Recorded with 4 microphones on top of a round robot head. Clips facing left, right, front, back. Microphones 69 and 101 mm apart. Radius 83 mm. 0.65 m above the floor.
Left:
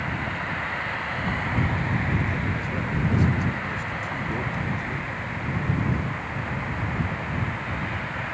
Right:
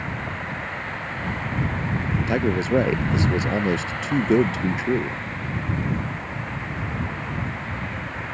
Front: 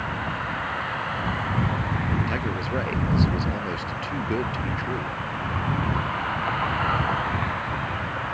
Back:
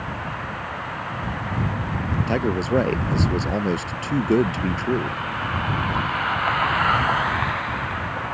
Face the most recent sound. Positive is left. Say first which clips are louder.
# right 7 dB, back 6 dB
turn(degrees=-120)